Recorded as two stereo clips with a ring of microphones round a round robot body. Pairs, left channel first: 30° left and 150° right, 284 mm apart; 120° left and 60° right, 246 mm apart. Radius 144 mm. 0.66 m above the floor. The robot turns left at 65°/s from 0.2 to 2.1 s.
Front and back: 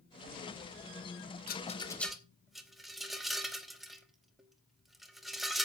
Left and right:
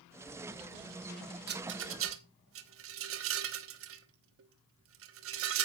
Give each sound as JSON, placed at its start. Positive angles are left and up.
{"t": 1.5, "sound": "a rattle", "azimuth_deg": -20, "distance_m": 1.2}